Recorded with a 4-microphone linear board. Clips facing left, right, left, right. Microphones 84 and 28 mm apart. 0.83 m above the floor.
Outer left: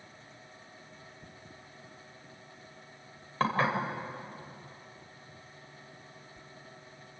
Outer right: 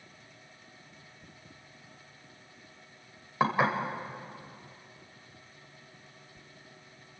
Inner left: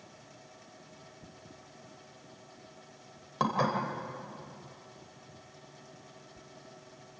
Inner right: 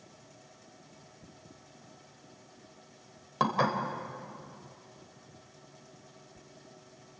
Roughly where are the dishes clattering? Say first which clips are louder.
Outer right 2 dB, inner right 1 dB; centre.